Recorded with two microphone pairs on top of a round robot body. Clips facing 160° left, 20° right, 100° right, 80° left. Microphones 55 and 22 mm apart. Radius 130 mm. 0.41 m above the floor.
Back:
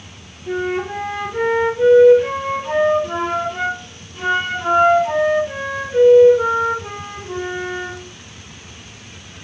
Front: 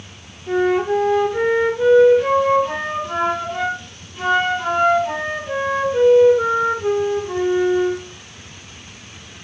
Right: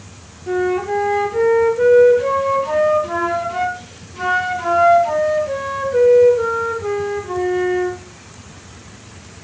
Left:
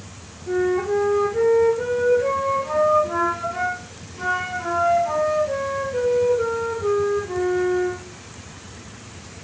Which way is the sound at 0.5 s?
110° right.